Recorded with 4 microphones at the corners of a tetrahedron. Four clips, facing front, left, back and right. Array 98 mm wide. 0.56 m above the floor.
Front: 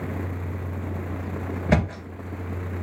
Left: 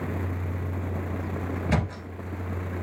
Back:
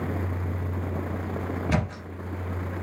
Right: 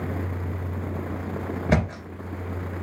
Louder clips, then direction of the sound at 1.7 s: Right 5 dB, front 7 dB; 40° right.